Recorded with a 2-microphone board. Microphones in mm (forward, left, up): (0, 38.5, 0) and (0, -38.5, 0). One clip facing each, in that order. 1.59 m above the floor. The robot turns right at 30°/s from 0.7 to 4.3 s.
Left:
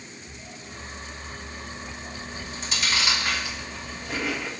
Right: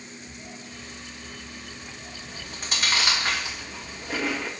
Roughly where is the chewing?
Right.